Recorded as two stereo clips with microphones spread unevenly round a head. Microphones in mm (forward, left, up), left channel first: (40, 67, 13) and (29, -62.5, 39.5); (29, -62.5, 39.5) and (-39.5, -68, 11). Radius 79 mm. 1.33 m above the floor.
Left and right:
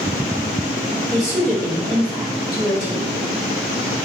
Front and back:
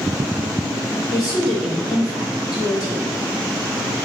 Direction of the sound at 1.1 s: 5° right.